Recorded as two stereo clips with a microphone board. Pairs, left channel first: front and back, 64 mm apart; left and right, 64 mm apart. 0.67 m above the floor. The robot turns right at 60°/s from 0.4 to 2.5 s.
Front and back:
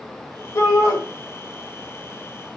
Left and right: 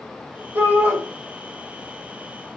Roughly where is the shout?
Ahead right.